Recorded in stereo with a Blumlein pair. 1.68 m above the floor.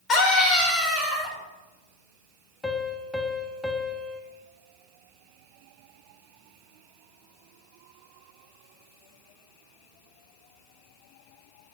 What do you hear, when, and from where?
0.1 s a scream: 25° left, 3 m
2.6 s a piano: 5° left, 0.6 m